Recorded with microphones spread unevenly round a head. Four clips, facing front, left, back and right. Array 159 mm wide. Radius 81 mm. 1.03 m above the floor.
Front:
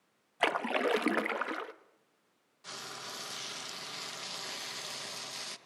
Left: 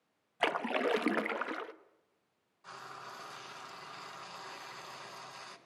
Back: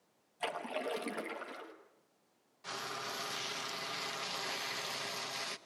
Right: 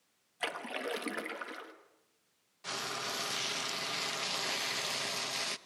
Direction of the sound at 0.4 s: 25° left.